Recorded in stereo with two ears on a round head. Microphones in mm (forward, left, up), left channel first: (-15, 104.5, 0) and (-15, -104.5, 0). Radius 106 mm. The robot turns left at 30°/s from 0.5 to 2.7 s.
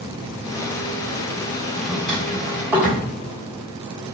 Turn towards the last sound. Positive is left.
turn(degrees=-5)  # may be behind; listen again after turning